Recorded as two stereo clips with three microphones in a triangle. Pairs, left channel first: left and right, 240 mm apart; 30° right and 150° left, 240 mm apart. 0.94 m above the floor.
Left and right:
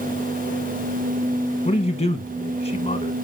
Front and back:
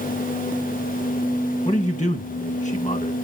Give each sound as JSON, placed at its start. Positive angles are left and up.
{"t": 1.6, "sound": "a man speaking", "azimuth_deg": 40, "distance_m": 0.9}